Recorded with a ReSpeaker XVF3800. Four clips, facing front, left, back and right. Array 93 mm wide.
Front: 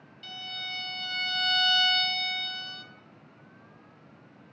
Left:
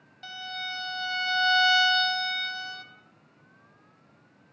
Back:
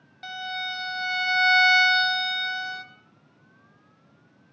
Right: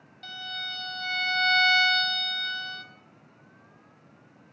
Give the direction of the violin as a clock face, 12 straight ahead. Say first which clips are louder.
Left 1 dB, back 9 dB; 6 o'clock.